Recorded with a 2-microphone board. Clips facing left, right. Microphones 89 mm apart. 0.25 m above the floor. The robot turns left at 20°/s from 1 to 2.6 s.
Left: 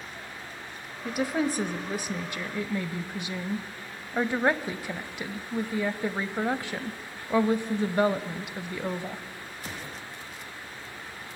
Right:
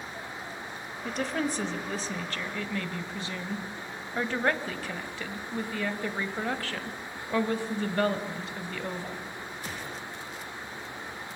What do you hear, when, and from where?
1.1 s a woman speaking: 5° left (ahead or behind), 0.9 m; by 9.2 s 15° left (ahead or behind), 0.9 m